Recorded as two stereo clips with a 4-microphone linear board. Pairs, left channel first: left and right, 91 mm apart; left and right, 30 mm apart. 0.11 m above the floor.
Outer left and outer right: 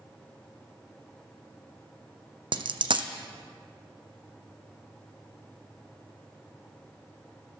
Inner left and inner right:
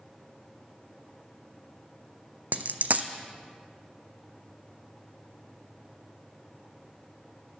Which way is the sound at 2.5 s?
65° right (ahead or behind).